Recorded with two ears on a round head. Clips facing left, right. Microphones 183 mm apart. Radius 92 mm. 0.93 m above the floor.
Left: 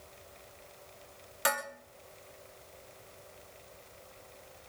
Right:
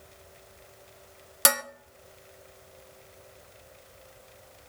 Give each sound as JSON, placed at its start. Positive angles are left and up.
{"t": 1.4, "sound": "dishes clattering", "side_deg": -50, "distance_m": 0.9}